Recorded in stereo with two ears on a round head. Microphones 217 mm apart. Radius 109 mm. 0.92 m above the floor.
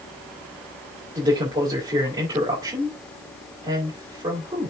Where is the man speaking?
15° right (ahead or behind), 4 m.